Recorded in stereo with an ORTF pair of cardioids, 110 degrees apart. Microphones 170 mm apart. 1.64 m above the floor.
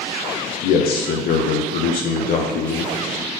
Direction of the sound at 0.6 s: 60° left.